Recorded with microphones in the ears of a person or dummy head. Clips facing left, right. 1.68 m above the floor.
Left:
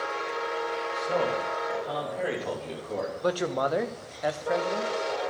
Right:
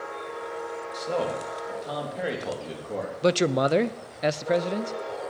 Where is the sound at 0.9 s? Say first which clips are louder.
Even; 50° right (ahead or behind), 3 m; by 3.1 s 10° right (ahead or behind), 3 m.